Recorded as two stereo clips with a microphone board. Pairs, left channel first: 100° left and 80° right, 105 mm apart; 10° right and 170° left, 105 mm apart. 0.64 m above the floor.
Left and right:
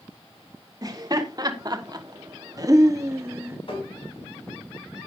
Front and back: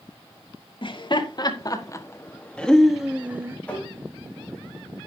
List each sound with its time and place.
0.8 s laughter: 35° right, 1.9 m; by 3.6 s 135° right, 1.4 m
3.7 s tapping: 65° left, 4.5 m